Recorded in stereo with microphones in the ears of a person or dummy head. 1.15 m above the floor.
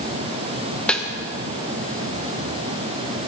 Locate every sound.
0.9 s a snare drum: 5° left (ahead or behind), 1.1 m